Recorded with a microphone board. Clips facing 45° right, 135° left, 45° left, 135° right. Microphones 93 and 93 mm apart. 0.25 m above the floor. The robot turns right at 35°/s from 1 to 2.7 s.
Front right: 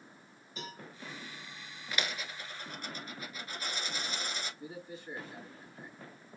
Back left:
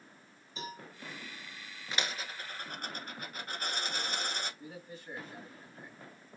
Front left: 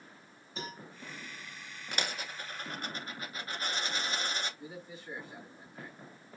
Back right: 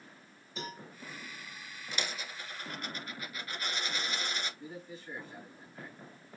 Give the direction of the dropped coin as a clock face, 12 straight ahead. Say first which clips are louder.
Even, front left 2 dB; 10 o'clock.